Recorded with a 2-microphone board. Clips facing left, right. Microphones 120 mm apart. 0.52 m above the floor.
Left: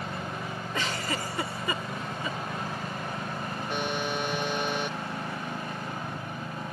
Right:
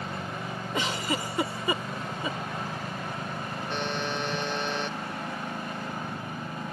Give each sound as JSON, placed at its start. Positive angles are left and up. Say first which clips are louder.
{"t": 0.7, "sound": "a giggle", "louder": "right 3 dB", "side_deg": -20}
{"t": 3.7, "sound": "a buzzer", "louder": "left 1 dB", "side_deg": 10}